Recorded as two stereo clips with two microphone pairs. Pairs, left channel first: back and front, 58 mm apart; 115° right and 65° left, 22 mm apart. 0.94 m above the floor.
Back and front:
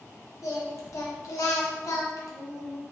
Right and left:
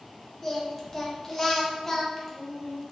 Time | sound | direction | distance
0.4 | singing | 165° left | 0.6 m